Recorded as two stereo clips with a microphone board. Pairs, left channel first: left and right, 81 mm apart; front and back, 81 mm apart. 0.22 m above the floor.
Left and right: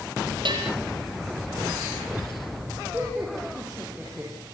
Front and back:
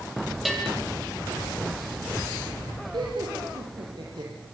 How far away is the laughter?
About 5 m.